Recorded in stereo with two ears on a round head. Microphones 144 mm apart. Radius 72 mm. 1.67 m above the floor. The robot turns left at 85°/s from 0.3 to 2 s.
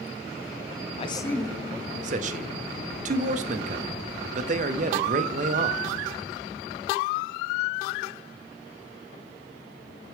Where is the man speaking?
40° left, 0.6 m; by 5.8 s 45° right, 0.6 m.